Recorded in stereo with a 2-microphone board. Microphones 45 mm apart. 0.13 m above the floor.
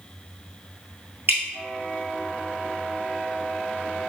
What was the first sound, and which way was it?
Dripping, 55° right (ahead or behind).